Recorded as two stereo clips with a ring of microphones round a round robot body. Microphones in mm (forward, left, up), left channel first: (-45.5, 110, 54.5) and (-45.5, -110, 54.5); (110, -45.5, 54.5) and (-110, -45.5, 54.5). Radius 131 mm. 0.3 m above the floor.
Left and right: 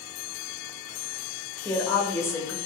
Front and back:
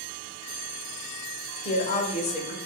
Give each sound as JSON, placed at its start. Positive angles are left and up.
{"t": 1.6, "sound": "a woman speaking", "azimuth_deg": 20, "distance_m": 1.2}